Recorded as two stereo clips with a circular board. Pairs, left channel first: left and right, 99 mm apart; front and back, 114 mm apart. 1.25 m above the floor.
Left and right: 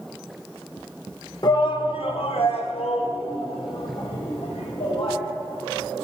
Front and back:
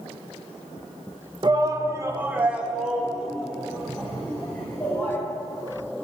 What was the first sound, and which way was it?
A shout, 130° left.